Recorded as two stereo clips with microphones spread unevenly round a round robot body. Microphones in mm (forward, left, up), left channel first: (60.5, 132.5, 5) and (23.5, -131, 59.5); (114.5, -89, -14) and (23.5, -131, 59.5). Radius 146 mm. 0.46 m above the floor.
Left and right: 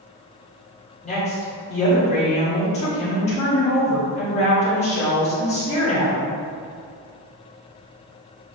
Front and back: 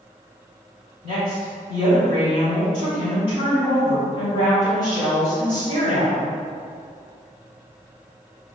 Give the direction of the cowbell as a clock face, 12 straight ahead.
I don't hear a cowbell.